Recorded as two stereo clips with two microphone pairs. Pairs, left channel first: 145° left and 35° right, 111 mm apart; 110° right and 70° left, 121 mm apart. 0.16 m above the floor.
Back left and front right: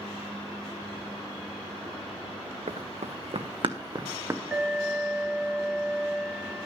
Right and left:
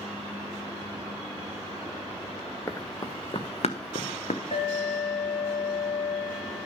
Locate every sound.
2.7 s running footsteps: 45° right, 0.9 m; by 4.4 s 105° right, 1.0 m
4.5 s an alarm: 115° right, 3 m